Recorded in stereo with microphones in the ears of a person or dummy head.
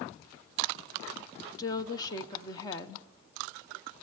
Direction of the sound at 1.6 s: 20° left (ahead or behind).